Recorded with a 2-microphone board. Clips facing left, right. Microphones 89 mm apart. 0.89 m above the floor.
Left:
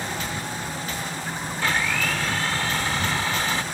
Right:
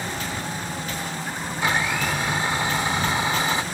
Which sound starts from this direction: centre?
A blender, at 1.6 s.